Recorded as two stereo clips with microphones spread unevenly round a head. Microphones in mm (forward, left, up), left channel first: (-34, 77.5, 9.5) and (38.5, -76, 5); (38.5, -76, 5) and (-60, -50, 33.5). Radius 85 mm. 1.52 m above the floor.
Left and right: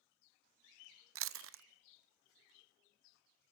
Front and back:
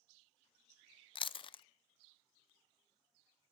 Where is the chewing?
55° right, 0.7 m.